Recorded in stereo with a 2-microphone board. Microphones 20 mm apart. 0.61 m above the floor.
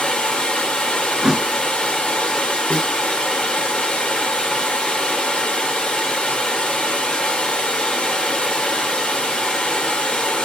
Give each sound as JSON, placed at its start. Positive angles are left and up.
{"t": 0.0, "sound": "running water", "side_deg": 65, "distance_m": 1.9}
{"t": 1.2, "sound": "a thud", "side_deg": -25, "distance_m": 0.6}
{"t": 2.7, "sound": "a snare drum", "side_deg": 85, "distance_m": 1.9}